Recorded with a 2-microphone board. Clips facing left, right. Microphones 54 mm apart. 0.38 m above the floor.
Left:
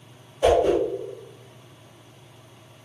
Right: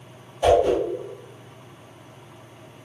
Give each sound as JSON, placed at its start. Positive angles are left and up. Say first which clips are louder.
{"t": 0.4, "sound": "a whoosh", "louder": "right 1 dB", "side_deg": 20, "distance_m": 1.6}